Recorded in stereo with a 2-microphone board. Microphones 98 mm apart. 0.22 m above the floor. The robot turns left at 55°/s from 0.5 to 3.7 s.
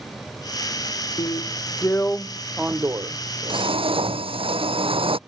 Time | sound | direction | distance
1.2 | a drill | 65° left | ?